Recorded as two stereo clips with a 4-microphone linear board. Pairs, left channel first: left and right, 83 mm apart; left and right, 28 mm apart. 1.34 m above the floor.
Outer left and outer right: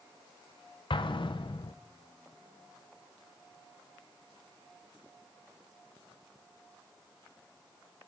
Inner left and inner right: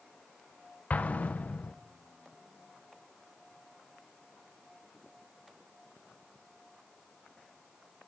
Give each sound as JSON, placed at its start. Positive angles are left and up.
{"t": 0.9, "sound": "an explosion", "side_deg": 85, "distance_m": 0.7}